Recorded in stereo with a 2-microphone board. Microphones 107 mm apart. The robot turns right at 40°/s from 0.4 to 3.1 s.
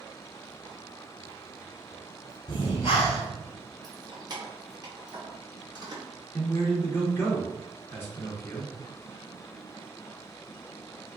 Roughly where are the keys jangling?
Right.